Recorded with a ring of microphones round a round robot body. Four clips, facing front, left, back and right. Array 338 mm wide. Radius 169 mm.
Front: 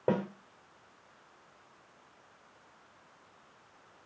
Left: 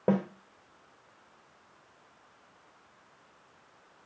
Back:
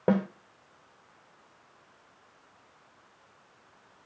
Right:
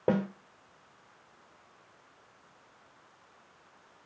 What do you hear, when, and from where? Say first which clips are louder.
0.1 s a snare drum: even, back 4 dB; 170° left, 1.3 m